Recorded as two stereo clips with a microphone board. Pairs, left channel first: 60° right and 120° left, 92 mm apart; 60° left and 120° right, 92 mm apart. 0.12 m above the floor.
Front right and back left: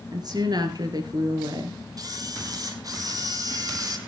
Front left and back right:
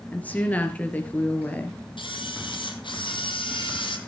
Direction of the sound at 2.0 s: 80° left.